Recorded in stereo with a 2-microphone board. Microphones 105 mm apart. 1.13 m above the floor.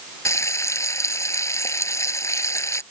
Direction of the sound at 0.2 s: 30° left (ahead or behind).